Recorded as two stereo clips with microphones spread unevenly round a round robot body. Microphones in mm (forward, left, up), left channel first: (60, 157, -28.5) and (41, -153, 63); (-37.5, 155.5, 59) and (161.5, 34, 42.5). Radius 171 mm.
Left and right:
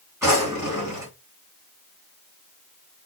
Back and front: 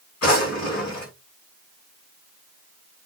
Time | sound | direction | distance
0.2 | a drawer | 175° right | 1.7 m